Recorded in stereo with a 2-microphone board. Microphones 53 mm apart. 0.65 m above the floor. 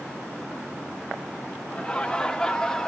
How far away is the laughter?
About 1.3 m.